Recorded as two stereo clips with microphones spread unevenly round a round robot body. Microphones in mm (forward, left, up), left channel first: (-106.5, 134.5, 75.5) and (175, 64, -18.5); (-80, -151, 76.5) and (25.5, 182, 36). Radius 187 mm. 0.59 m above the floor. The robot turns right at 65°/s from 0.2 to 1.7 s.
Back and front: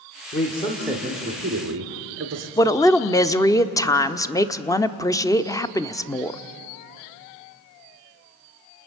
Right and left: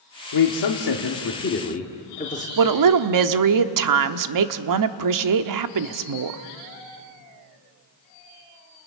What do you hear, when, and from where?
0.3 s a man speaking: 125° right, 1.8 m; by 2.5 s 35° right, 1.8 m
2.6 s a woman speaking: 75° left, 1.2 m